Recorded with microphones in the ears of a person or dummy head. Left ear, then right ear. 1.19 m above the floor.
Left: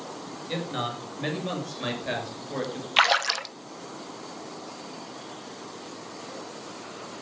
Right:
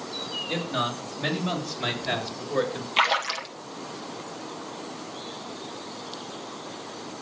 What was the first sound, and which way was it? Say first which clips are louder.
A man speaking: right 1 dB; 10° left (ahead or behind).